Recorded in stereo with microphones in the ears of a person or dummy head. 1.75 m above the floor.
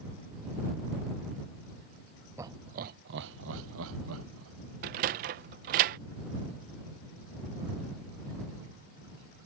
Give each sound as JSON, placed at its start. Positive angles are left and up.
{"t": 2.4, "sound": "laughter", "side_deg": -15}
{"t": 4.8, "sound": "a sliding door", "side_deg": -40}